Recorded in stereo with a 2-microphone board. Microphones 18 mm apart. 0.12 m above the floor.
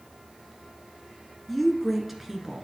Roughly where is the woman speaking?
Centre.